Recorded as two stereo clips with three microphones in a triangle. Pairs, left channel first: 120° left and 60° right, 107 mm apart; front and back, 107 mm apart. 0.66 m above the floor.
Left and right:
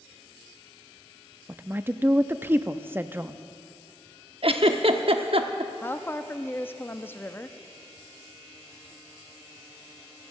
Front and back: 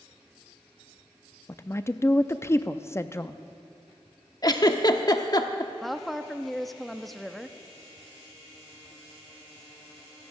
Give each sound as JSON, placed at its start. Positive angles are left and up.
{"t": 1.5, "sound": "a woman speaking", "azimuth_deg": -20, "distance_m": 0.5}
{"t": 4.4, "sound": "a giggle", "azimuth_deg": -45, "distance_m": 0.9}
{"t": 5.8, "sound": "a woman speaking", "azimuth_deg": 85, "distance_m": 0.6}